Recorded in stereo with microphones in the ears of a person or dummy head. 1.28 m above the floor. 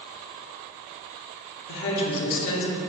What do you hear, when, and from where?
1.7 s a woman speaking: 60° left (ahead or behind), 0.5 m